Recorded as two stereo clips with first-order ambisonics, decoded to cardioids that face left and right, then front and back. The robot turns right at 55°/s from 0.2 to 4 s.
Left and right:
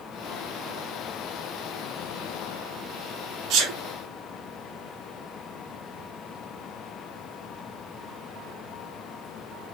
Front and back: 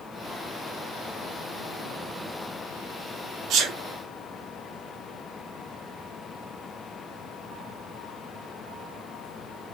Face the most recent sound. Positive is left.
turn(degrees=-110)